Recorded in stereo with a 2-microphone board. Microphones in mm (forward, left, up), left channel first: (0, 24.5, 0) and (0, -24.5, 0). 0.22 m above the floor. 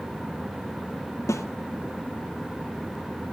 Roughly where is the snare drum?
Left.